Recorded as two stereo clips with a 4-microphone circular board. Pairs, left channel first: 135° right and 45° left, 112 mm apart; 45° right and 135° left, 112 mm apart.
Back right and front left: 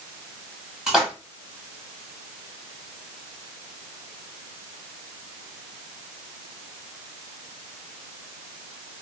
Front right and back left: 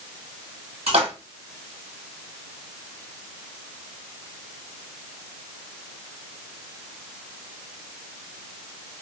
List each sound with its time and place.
0.9 s a splash: 130° left, 1.3 m